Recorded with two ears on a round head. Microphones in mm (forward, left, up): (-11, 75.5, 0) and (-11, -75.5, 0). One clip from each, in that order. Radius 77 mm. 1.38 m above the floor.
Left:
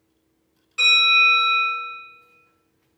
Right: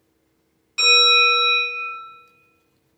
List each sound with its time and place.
0.8 s a bell: 15° right (ahead or behind), 1.5 m